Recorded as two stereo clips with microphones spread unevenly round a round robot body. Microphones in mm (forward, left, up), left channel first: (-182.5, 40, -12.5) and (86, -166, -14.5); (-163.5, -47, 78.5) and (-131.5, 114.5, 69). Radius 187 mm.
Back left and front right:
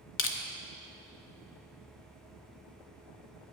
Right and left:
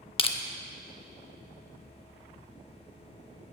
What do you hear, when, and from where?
0.2 s crushing: 165° right, 0.9 m